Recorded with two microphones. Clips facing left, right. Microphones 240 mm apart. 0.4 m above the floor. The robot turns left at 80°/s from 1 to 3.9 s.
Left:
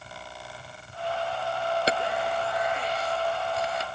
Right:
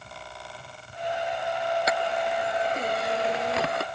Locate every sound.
1.9 s a camera shutter: 30° left (ahead or behind); by 3.9 s 50° right (ahead or behind)